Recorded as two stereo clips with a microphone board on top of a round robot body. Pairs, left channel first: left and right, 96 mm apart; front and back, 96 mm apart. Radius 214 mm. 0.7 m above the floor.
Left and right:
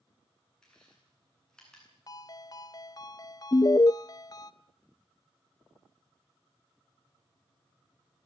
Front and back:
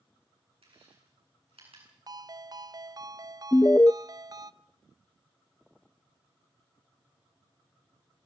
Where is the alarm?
55° left, 0.5 m.